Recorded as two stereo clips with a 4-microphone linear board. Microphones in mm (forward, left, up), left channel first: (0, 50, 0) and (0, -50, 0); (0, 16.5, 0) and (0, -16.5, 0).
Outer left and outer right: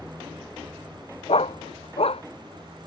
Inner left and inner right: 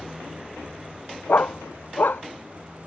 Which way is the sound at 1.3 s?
70° left (ahead or behind).